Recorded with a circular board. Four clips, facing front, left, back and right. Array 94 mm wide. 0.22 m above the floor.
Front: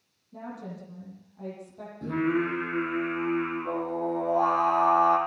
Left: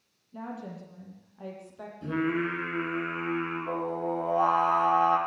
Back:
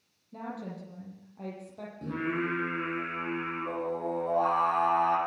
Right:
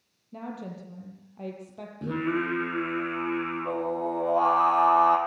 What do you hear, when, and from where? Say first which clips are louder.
0.3 s a woman speaking: right 1 dB, even; 105° right, 7.5 m
2.0 s singing: even, front 6 dB; 85° right, 8.5 m